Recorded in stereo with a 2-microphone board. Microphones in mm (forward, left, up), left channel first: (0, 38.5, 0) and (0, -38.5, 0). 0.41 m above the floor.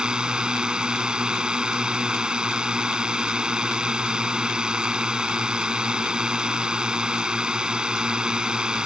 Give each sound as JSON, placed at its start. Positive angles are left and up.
{"t": 0.0, "sound": "a drone", "side_deg": -10}